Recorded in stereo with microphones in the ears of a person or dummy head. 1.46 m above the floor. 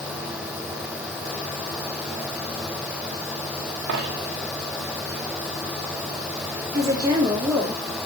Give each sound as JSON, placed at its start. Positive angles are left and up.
{"t": 3.9, "sound": "a dropped coin", "side_deg": -60, "distance_m": 3.0}
{"t": 6.7, "sound": "a woman speaking", "side_deg": -20, "distance_m": 4.0}